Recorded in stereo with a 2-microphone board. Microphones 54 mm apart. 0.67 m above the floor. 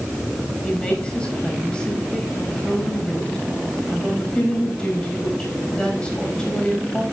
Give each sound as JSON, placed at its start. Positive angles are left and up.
{"t": 0.6, "sound": "a woman speaking", "side_deg": 20, "distance_m": 4.5}